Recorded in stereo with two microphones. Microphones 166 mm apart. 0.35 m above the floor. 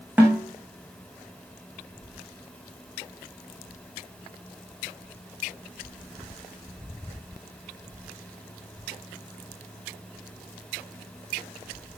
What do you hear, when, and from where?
0.2 s a snare drum: 10° right (ahead or behind), 6 m